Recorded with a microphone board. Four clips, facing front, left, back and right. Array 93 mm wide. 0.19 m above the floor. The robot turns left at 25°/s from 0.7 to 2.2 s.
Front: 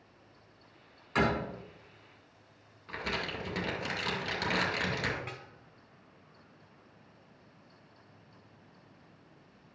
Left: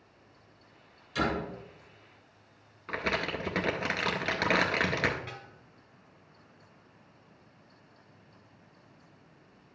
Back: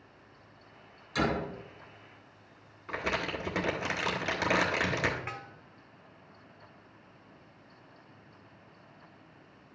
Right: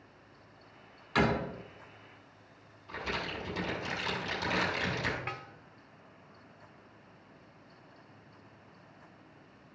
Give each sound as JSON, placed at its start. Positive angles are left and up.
{"t": 1.1, "sound": "a door slam", "azimuth_deg": -50, "distance_m": 3.0}
{"t": 2.9, "sound": "crumpling", "azimuth_deg": 110, "distance_m": 1.8}
{"t": 5.3, "sound": "a snare drum", "azimuth_deg": -120, "distance_m": 1.1}